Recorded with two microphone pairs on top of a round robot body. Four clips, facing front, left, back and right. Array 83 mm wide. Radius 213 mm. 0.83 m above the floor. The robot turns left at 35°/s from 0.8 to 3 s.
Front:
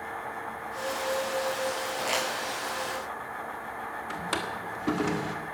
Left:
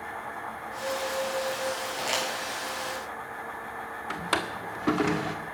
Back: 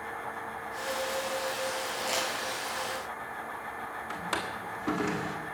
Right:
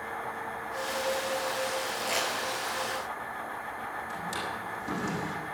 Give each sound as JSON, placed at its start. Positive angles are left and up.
{"t": 2.0, "sound": "crumpling", "azimuth_deg": 30, "distance_m": 8.5}
{"t": 4.1, "sound": "a drawer", "azimuth_deg": 95, "distance_m": 1.8}